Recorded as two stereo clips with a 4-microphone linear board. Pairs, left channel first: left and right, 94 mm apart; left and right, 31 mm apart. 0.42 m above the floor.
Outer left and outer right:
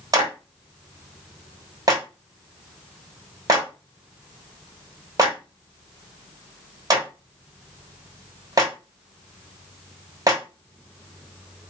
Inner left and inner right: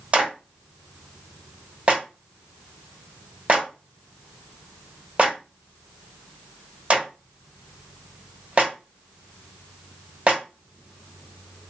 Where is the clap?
40° right (ahead or behind), 1.4 m.